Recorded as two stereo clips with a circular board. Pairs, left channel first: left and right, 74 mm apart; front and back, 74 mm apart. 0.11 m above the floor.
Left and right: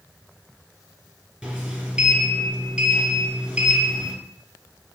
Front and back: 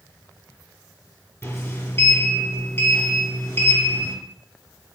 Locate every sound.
1.4 s a sliding door: 20° right, 1.4 m